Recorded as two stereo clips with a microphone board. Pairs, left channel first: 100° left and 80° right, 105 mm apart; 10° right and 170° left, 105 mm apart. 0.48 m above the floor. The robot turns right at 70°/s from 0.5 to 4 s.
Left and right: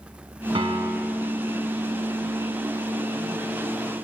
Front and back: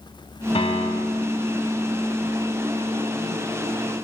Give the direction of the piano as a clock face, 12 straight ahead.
1 o'clock.